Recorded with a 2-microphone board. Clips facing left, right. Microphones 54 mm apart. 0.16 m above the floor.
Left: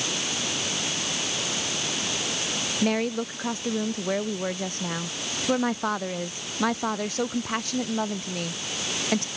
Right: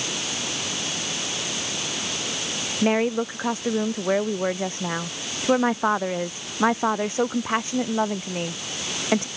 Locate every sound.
2.8 s a woman speaking: 25° right (ahead or behind)